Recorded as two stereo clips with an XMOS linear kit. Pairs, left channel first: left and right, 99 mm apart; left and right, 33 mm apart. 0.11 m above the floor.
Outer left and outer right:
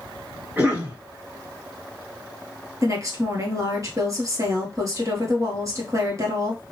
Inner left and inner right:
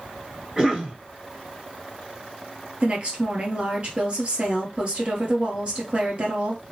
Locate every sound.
0.6 s a cough: 20° right (ahead or behind), 1.2 m
2.8 s a woman speaking: 35° right (ahead or behind), 1.6 m